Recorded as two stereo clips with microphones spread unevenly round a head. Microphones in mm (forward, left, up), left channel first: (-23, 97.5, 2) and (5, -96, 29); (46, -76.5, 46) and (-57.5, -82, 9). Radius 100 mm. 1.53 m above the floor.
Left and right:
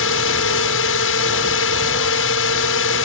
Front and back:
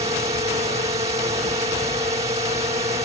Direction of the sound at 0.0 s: 120° left.